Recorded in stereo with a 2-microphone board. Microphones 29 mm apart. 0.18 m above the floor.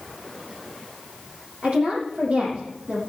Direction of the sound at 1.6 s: 50° right (ahead or behind).